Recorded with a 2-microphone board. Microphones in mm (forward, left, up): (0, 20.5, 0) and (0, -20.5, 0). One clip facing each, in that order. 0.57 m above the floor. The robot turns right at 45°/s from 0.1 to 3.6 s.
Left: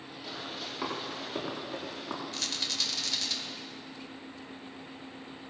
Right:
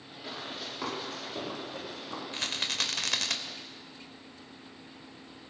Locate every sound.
0.2 s running footsteps: 15° right (ahead or behind), 7 m; by 2.2 s 65° left (ahead or behind), 7 m
2.3 s a rattle: 150° right, 1.0 m; by 3.4 s 105° right, 1.0 m